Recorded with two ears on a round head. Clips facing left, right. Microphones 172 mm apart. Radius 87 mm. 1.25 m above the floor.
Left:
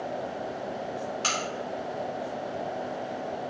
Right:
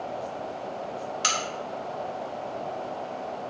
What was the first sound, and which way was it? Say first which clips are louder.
A crack: even; 15° right (ahead or behind).